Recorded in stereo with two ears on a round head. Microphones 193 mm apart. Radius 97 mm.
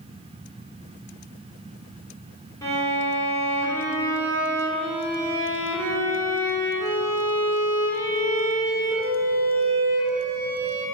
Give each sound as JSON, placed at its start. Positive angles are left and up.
{"t": 2.6, "sound": "a violin", "side_deg": 15, "distance_m": 3.5}